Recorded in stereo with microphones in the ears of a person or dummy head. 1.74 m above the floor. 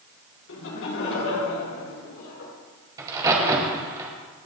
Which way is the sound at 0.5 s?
65° left (ahead or behind).